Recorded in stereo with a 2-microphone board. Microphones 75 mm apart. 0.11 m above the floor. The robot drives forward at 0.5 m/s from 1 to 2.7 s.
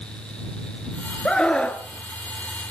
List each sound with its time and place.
1.2 s a scream: 10° left (ahead or behind), 1.3 m